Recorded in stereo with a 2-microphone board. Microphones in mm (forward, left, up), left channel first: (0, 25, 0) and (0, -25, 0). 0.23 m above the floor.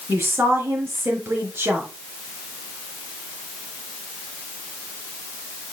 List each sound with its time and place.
0.1 s a woman speaking: 50° right (ahead or behind), 3 m